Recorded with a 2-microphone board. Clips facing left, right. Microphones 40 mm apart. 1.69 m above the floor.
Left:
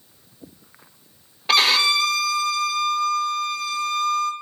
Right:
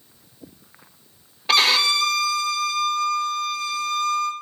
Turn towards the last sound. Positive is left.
turn(degrees=0)  # may be behind; listen again after turning